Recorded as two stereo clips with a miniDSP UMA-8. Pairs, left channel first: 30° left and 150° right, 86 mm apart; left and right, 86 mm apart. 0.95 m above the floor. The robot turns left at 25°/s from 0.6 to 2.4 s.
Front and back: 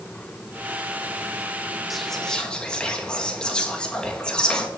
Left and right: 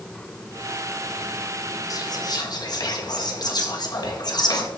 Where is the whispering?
120° left, 1.3 m; by 4.7 s 105° left, 1.3 m.